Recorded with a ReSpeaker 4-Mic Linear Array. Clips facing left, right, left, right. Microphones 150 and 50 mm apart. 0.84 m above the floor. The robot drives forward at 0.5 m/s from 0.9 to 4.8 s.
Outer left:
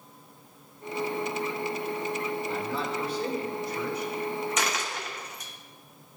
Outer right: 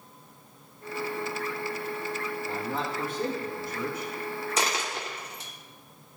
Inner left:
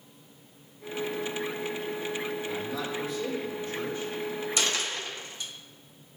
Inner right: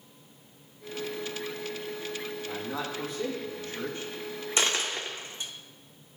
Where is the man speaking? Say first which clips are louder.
Outer left 1 dB, inner left 2 dB; 45° right (ahead or behind), 1.6 m; by 4.1 s 50° right (ahead or behind), 1.4 m.